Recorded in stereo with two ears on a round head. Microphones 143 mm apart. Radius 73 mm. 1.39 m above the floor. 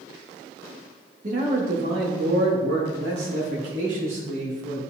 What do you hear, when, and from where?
1.2 s a man speaking: 45° right (ahead or behind), 2 m; by 4.8 s 85° right, 4 m